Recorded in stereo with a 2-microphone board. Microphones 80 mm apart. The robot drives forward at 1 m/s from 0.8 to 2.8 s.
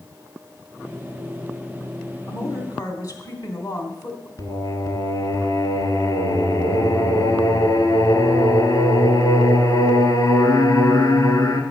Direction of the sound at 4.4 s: 45° left (ahead or behind).